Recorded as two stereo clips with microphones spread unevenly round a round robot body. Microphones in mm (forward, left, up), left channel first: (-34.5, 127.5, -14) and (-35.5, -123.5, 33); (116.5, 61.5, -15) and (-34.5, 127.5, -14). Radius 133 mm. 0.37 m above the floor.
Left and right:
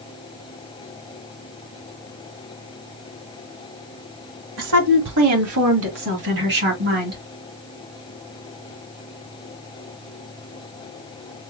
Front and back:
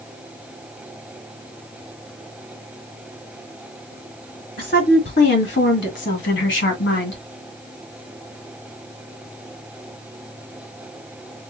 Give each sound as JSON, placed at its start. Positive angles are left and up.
{"t": 4.6, "sound": "a woman speaking", "azimuth_deg": -70, "distance_m": 1.8}